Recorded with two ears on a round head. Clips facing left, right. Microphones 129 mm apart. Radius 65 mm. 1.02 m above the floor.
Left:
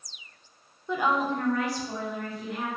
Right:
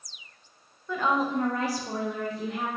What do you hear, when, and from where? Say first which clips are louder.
0.9 s a woman speaking: even; 15° left (ahead or behind), 0.7 m; by 2.7 s 65° right (ahead or behind), 1.0 m